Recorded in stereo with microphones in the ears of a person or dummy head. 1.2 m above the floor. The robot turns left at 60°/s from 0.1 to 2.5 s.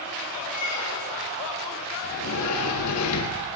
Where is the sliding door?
70° left (ahead or behind), 1.0 m; by 3.5 s 80° left, 1.0 m.